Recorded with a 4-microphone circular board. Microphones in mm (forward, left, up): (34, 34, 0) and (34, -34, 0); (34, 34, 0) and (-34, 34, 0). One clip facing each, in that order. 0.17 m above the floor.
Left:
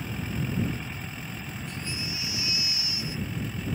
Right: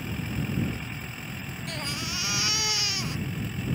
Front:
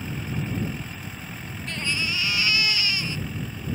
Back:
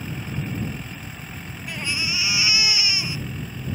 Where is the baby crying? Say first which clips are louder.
Right 3 dB, even; 100° right.